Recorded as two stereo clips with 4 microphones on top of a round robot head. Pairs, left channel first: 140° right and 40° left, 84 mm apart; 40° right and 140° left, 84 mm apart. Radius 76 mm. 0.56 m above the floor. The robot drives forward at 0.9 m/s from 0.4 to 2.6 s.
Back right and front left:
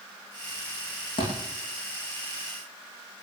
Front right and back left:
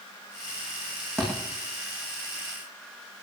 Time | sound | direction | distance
1.2 | a thud | 120° right | 8.5 m